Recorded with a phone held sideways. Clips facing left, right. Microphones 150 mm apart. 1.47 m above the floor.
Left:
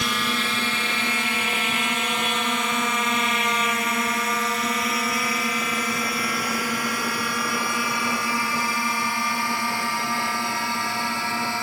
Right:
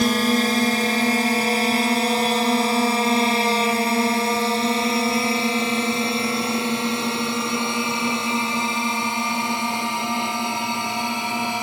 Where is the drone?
40° right (ahead or behind); by 11.6 s 20° right (ahead or behind).